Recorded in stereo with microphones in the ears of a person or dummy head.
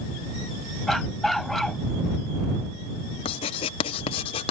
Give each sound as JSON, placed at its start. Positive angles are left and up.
{"t": 0.9, "sound": "a dog barking", "side_deg": 0}
{"t": 3.2, "sound": "writing", "side_deg": 35}